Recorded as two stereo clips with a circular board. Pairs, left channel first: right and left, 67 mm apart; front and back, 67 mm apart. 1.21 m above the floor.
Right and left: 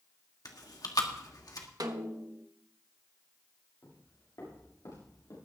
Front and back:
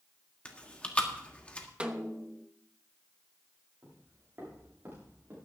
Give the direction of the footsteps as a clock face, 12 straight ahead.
4 o'clock.